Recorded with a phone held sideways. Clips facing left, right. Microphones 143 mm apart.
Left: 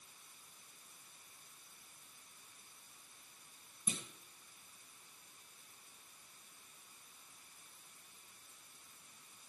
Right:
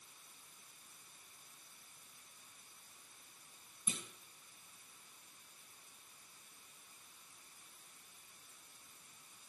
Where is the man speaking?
I don't hear a man speaking.